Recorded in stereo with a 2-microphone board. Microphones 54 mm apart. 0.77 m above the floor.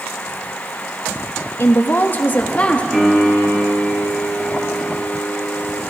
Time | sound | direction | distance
1.6 | a woman speaking | 45° left (ahead or behind) | 0.9 m
2.9 | a piano | 15° right (ahead or behind) | 4 m